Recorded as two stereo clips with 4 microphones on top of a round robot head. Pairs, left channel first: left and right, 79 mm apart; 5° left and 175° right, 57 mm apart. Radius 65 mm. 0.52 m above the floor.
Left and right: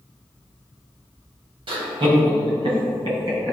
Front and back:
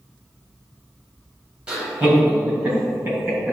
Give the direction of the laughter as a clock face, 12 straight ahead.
3 o'clock.